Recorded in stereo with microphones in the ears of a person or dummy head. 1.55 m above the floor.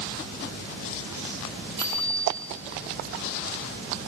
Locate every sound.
1.8 s a bicycle bell: 30° right (ahead or behind), 6 m